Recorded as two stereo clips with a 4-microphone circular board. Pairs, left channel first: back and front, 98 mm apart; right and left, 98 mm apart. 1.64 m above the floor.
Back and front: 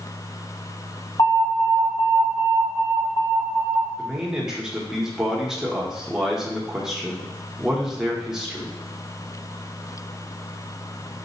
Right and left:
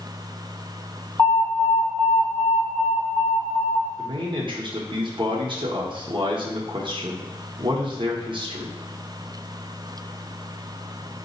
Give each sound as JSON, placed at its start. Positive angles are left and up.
{"t": 1.2, "sound": "an alarm", "azimuth_deg": -145, "distance_m": 1.6}
{"t": 4.0, "sound": "a man speaking", "azimuth_deg": 85, "distance_m": 0.8}